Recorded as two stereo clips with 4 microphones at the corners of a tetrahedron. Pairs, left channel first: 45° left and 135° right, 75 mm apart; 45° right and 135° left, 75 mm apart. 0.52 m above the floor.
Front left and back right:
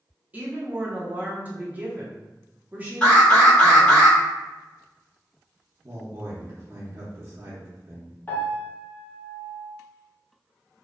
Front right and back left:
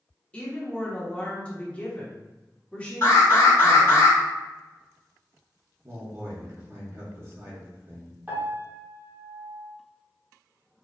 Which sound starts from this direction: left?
A piano, at 8.3 s.